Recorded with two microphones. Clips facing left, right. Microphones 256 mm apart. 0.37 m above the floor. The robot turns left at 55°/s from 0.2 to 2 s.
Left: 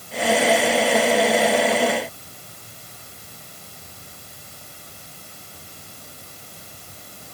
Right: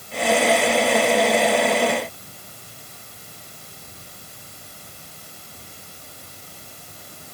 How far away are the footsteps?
I don't hear footsteps.